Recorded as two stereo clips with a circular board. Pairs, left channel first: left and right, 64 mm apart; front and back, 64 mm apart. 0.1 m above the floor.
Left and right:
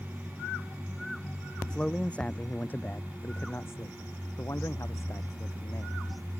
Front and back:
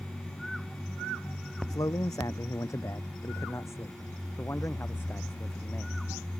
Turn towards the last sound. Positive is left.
turn(degrees=60)